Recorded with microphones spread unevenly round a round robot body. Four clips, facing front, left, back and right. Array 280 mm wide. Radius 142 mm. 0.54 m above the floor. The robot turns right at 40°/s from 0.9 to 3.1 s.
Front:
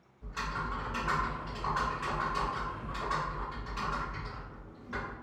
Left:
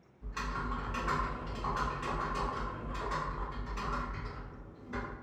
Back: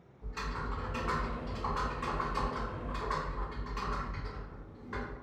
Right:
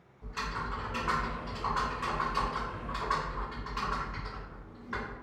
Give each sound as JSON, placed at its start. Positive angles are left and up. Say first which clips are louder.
{"t": 0.2, "sound": "typing on a keyboard", "louder": "right 2 dB, front 3 dB", "azimuth_deg": 120, "distance_m": 1.6}